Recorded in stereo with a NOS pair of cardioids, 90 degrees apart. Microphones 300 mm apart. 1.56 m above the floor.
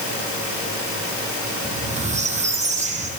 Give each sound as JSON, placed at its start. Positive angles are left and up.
{"t": 1.6, "sound": "a squeak", "azimuth_deg": -25, "distance_m": 5.5}